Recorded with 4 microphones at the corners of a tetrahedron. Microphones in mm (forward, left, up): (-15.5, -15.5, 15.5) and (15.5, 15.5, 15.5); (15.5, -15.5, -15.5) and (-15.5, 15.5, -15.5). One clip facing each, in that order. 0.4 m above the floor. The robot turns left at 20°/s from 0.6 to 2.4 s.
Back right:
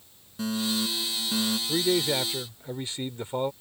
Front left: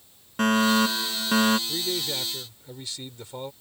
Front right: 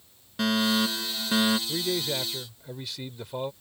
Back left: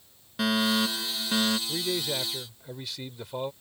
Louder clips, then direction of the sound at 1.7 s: Back right 5 dB, front right 1 dB; 125° right.